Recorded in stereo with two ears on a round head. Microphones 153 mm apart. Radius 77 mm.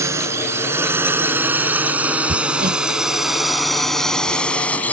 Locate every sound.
0.0 s a drone: 15° right (ahead or behind); by 4.9 s 10° left (ahead or behind)
2.3 s hammering: 50° right (ahead or behind)